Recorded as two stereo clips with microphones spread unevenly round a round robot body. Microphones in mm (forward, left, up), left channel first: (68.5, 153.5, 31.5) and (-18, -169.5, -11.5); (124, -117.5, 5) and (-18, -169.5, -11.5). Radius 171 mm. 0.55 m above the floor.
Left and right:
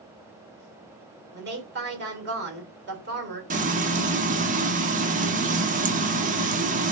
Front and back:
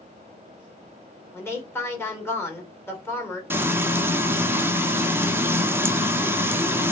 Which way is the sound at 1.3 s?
55° right.